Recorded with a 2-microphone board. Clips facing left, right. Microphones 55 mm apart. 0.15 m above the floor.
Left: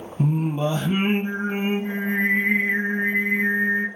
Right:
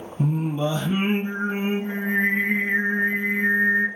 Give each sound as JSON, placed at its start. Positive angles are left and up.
{"t": 0.2, "sound": "singing", "side_deg": 40, "distance_m": 0.8}